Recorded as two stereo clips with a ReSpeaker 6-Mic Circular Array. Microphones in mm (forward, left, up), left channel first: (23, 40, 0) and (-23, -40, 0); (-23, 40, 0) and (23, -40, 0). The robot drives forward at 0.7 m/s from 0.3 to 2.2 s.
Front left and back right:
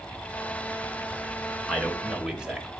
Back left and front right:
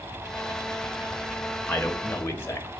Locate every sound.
1.7 s a man speaking: 145° left, 0.8 m; by 2.7 s 165° left, 1.0 m